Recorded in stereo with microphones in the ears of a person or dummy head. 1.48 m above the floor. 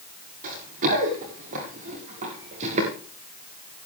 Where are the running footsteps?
45° right (ahead or behind), 8.5 m; by 2.9 s 35° right (ahead or behind), 7.5 m.